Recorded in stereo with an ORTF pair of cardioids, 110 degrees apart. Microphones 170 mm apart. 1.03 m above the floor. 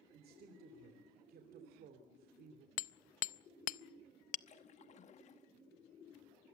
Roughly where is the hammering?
Ahead left.